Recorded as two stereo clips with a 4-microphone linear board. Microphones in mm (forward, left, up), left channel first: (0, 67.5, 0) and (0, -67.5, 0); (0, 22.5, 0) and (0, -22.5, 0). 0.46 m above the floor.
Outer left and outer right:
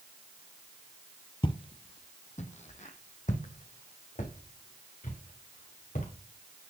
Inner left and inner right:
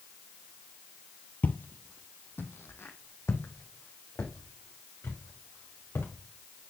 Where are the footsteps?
40° left (ahead or behind), 0.6 m; by 6.1 s 70° left (ahead or behind), 3 m.